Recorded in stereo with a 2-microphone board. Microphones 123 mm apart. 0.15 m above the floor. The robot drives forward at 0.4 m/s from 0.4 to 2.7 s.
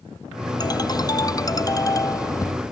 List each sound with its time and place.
0.6 s a ringtone: 30° left (ahead or behind); by 2.5 s 25° left (ahead or behind)